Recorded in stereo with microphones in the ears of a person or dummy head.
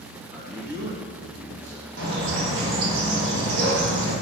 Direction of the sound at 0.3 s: 25° right (ahead or behind).